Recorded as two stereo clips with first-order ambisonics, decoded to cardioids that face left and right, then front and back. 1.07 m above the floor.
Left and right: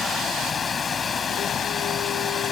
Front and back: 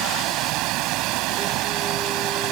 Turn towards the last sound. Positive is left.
turn(degrees=155)